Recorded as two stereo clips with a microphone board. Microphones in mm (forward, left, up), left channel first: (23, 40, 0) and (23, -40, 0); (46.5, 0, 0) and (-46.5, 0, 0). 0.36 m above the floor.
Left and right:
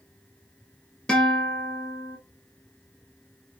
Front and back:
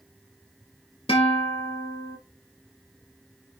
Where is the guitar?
10° left, 0.9 m.